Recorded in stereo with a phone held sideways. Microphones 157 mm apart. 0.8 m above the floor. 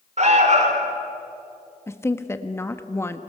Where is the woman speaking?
15° left (ahead or behind), 1.3 m.